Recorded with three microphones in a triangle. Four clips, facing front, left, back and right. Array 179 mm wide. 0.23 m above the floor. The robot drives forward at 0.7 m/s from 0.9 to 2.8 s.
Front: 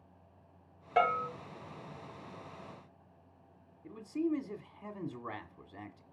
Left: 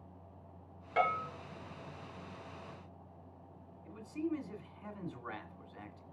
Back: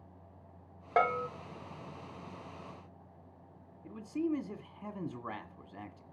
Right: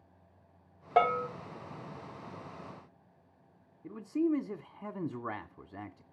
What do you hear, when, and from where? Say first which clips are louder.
1.0 s a bell: right 6 dB, even; 125° right, 2 m; by 1.3 s 130° right, 2 m
3.8 s a man speaking: right 8 dB, even; 100° right, 1.7 m